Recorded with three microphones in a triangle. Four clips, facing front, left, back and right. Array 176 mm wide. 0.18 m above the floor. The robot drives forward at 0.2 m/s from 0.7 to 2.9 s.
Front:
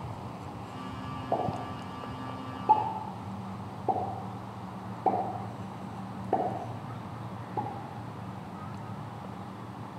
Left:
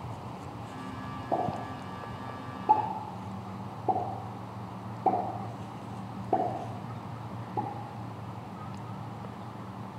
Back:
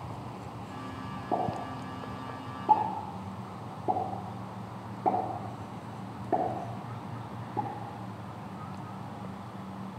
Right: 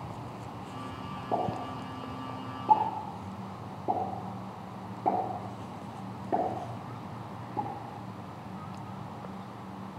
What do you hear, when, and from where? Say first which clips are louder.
1.3 s a pop: even, even; 140° right, 2.5 m; by 7.7 s 145° right, 2.5 m